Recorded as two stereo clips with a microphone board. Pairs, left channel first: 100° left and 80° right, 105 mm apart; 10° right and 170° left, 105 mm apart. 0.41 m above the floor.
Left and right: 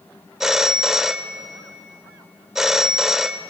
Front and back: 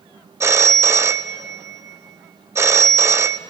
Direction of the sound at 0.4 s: 160° right.